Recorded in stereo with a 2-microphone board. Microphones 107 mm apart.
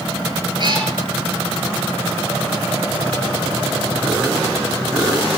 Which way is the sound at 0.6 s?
45° right (ahead or behind).